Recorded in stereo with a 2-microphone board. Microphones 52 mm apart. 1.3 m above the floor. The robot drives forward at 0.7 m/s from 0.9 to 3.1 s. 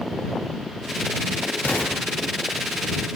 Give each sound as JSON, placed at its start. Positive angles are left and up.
{"t": 1.6, "sound": "an explosion", "side_deg": 35, "distance_m": 1.2}